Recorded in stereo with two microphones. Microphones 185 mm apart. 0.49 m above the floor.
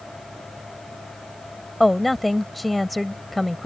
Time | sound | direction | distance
1.8 | a woman speaking | centre (ahead or behind) | ?